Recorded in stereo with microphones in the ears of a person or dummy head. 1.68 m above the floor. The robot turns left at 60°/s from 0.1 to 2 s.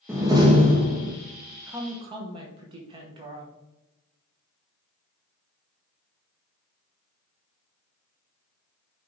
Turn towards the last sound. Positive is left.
turn(degrees=-30)  # may be behind; listen again after turning